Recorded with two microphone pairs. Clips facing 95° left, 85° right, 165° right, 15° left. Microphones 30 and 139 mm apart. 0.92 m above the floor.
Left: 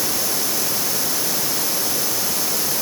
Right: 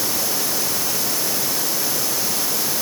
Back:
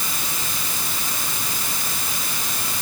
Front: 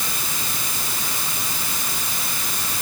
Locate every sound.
Only background noise.